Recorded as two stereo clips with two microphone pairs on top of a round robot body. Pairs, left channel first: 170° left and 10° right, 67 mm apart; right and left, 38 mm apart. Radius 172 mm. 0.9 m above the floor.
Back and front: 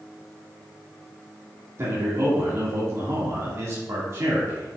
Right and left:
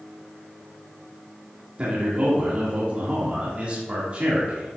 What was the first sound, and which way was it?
A man speaking, 35° left.